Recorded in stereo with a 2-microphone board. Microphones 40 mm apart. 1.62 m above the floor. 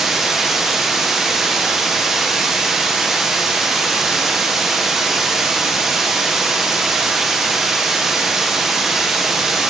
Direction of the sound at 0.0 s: 5° right (ahead or behind).